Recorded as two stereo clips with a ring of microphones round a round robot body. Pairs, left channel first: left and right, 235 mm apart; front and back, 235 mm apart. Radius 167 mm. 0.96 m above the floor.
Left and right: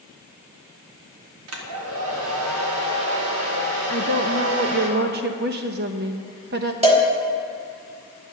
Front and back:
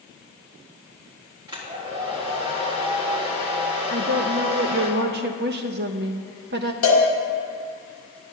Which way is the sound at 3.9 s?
135° right.